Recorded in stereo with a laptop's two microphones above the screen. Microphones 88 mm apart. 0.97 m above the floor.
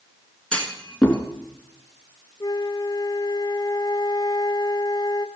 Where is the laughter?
I don't hear laughter.